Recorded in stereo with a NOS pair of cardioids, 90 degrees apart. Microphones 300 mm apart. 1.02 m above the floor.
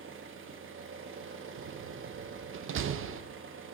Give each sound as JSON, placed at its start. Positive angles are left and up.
{"t": 0.0, "sound": "an engine running", "azimuth_deg": -40, "distance_m": 0.9}
{"t": 1.6, "sound": "a door slam", "azimuth_deg": -45, "distance_m": 0.5}